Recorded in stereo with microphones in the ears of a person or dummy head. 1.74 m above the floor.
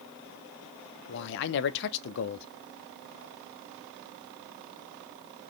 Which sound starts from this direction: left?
A man speaking, at 1.1 s.